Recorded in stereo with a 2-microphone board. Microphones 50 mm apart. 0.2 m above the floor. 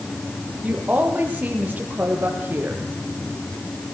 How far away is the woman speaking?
About 8 m.